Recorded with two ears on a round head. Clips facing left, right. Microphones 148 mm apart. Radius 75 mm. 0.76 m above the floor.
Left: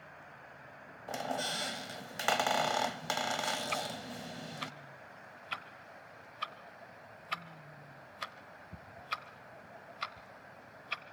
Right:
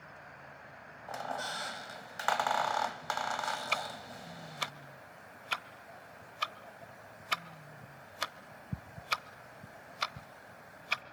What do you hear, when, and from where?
1.1 s a squeak: 30° left (ahead or behind), 0.7 m
3.7 s ticking: 60° right (ahead or behind), 0.8 m